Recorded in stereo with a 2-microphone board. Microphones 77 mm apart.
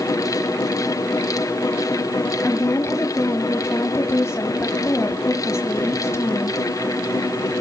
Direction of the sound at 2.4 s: 35° left (ahead or behind).